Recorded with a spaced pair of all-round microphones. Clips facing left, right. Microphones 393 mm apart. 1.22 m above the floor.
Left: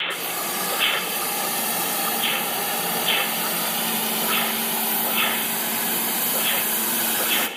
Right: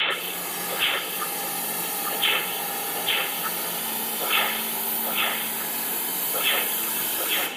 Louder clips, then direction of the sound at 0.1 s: Left 3 dB; 75° left (ahead or behind).